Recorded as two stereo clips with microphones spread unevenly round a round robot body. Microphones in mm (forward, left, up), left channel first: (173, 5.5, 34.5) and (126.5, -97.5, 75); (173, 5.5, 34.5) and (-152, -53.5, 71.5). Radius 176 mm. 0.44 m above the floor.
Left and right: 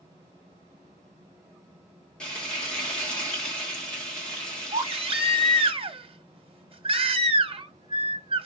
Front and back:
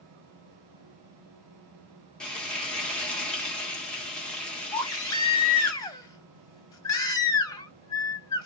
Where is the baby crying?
70° right, 1.0 m.